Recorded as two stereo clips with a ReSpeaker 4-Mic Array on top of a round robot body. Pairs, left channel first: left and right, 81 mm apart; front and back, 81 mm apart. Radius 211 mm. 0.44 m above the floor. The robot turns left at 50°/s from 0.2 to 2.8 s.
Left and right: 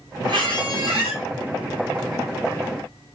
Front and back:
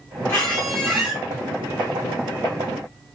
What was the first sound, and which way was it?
A squeak, 60° right.